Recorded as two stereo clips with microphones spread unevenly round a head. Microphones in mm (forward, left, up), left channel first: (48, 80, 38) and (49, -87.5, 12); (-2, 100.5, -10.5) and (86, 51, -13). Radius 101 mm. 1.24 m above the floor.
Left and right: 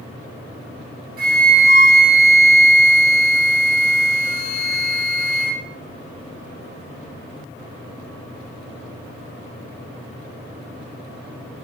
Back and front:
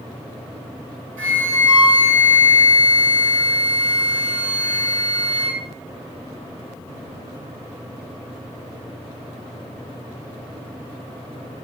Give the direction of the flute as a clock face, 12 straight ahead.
2 o'clock.